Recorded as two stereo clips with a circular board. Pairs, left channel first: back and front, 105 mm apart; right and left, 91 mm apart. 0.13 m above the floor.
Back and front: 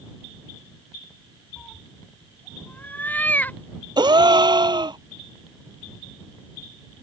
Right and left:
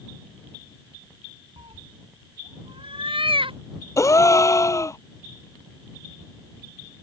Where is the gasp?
40° right.